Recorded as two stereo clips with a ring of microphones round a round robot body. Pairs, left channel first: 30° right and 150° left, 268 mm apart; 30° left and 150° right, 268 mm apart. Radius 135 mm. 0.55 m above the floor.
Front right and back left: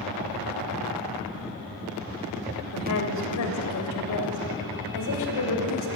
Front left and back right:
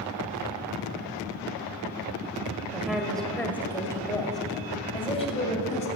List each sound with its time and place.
2.7 s a woman speaking: 65° right, 2.5 m; by 5.9 s 35° right, 3.5 m